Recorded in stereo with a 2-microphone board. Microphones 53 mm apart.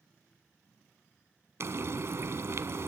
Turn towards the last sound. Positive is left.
turn(degrees=-60)  # may be behind; listen again after turning